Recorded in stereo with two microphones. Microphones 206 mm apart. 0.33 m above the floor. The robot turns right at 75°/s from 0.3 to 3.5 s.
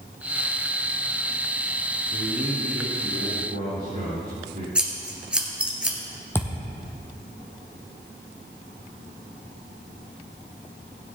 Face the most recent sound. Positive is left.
turn(degrees=10)  # may be behind; listen again after turning